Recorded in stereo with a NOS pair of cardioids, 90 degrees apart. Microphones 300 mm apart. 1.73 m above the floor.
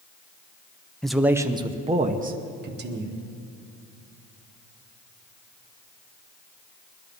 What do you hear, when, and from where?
1.0 s a man speaking: straight ahead, 1.1 m; by 3.2 s 35° right, 2 m